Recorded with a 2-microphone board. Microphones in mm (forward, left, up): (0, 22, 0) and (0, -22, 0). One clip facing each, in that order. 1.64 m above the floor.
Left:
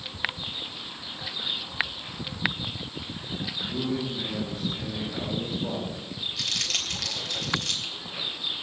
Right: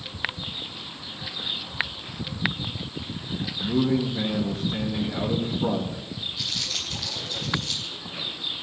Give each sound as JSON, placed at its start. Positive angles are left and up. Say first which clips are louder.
{"t": 3.6, "sound": "a man speaking", "louder": "right 7 dB", "side_deg": -85, "distance_m": 2.5}
{"t": 6.4, "sound": "crumpling", "louder": "left 2 dB", "side_deg": 75, "distance_m": 3.5}